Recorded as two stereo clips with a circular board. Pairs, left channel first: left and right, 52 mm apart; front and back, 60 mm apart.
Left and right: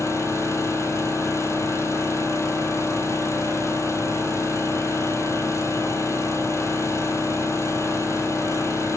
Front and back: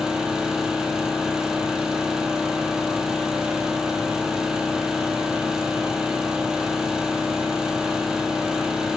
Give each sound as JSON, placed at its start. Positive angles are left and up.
{"t": 0.0, "sound": "an engine running", "azimuth_deg": 100, "distance_m": 1.7}